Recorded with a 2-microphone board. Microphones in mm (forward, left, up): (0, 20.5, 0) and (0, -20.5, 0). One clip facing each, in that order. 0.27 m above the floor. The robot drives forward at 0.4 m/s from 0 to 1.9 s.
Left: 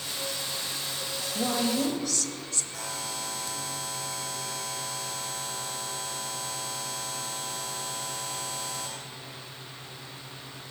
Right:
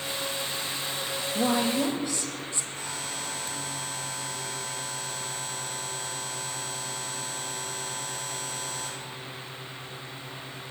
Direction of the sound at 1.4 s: 20° right (ahead or behind).